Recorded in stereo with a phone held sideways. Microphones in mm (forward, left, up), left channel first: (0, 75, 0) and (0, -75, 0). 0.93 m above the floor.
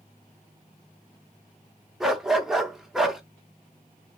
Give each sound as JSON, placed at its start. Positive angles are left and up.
{"t": 2.0, "sound": "a dog barking", "side_deg": -5, "distance_m": 0.5}